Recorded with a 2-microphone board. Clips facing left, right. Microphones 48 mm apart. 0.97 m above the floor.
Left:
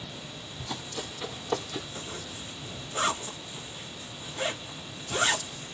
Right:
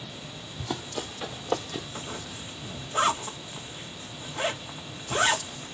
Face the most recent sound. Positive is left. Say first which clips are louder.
# right 2 dB
turn(degrees=-30)  # may be behind; listen again after turning